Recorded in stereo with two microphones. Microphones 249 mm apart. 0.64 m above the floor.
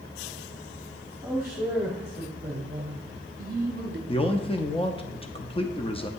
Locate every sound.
1.2 s a man speaking: 10° right (ahead or behind), 1.4 m; by 4.0 s 45° right (ahead or behind), 0.9 m
4.1 s a man speaking: 25° left (ahead or behind), 0.5 m